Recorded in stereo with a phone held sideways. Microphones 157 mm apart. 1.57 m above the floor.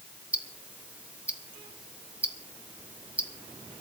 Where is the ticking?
10° right (ahead or behind), 1.2 m.